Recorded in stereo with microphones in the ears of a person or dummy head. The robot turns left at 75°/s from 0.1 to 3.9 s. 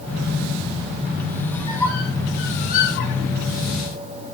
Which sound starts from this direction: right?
A squeak, at 1.5 s.